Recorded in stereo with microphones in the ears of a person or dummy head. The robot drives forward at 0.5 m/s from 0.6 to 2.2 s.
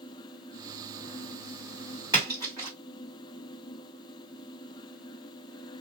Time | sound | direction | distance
2.1 | a splash | 15° right (ahead or behind) | 1.9 m